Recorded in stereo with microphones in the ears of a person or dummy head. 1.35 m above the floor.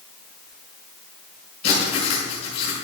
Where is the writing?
35° left (ahead or behind), 7 m.